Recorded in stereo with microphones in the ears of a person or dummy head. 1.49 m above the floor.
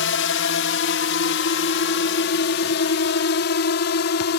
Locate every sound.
0.0 s a drone: 60° left (ahead or behind)